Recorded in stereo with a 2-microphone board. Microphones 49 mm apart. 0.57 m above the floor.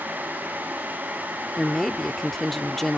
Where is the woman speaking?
5° left (ahead or behind).